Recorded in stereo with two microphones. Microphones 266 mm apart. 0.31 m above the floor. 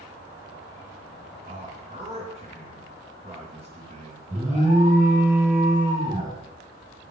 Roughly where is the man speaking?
Right.